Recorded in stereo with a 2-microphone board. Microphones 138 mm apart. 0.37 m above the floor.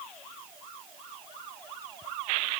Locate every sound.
Only background noise.